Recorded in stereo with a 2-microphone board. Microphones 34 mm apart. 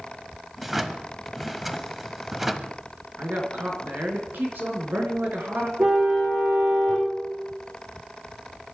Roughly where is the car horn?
Right.